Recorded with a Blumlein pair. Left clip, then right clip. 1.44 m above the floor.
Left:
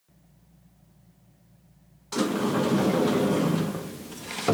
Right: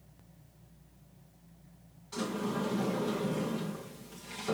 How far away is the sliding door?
About 0.6 m.